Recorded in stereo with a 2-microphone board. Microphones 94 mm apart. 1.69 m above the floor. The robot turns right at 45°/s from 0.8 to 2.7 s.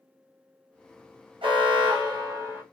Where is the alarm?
85° right, 0.7 m; by 2.6 s 30° right, 0.7 m.